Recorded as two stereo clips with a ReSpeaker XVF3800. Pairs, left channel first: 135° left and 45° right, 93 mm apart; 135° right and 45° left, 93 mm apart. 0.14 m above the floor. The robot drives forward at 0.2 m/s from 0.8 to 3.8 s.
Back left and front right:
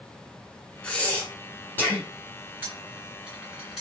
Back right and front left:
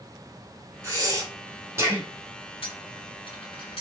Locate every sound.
0.8 s breathing: 65° left, 0.9 m; by 2.1 s 90° left, 0.9 m
2.6 s a dropped coin: 120° right, 0.9 m; by 3.8 s 130° right, 1.0 m